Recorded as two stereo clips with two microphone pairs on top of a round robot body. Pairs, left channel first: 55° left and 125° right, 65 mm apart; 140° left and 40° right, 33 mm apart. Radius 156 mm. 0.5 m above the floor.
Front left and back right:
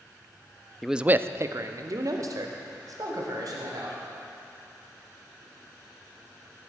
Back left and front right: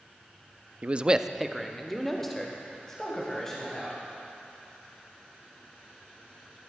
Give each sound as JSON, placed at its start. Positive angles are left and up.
{"t": 0.8, "sound": "a man speaking", "azimuth_deg": -55, "distance_m": 0.7}